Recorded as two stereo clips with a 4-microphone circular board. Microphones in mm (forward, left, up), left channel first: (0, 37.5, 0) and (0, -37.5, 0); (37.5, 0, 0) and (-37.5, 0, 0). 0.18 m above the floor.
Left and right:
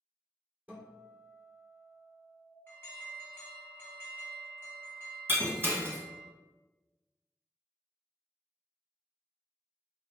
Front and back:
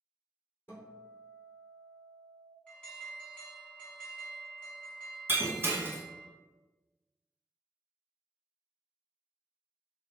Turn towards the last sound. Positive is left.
turn(degrees=-135)